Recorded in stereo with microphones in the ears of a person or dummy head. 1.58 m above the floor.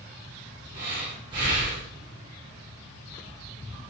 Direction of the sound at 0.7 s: 30° right (ahead or behind).